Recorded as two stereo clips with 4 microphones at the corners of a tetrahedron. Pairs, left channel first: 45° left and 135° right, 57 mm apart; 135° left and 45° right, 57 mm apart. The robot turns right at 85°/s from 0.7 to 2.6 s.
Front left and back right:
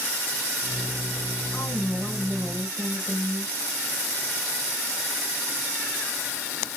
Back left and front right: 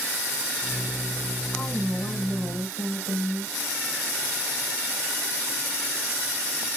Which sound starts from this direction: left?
A woman speaking, at 1.5 s.